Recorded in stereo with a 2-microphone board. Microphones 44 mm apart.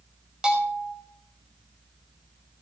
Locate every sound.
0.4 s a bell: 20° right (ahead or behind), 5.5 m